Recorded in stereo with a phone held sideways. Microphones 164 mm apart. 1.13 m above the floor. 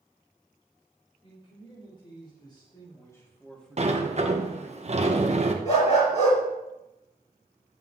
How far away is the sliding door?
About 1.1 m.